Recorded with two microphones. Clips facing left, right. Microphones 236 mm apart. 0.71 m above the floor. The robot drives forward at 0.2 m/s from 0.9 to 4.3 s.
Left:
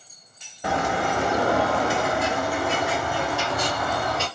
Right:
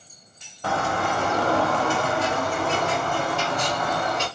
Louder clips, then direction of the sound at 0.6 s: Left 1 dB; 15° left (ahead or behind).